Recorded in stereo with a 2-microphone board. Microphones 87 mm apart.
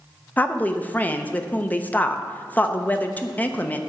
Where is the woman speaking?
20° left (ahead or behind), 0.6 m.